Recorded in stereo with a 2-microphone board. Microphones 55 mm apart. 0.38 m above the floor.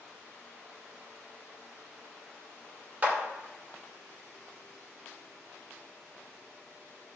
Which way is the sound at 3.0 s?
30° right (ahead or behind).